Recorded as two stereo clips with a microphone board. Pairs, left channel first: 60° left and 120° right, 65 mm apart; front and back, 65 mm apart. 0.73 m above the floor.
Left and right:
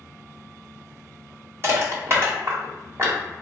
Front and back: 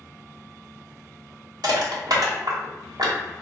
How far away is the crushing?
About 1.0 m.